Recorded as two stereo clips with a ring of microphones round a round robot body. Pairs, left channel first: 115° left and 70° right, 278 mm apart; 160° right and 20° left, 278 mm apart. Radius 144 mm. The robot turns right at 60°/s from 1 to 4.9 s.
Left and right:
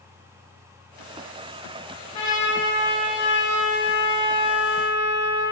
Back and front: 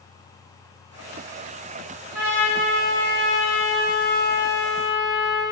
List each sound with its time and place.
2.1 s a trumpet: 105° left, 1.3 m; by 5.4 s 85° right, 1.3 m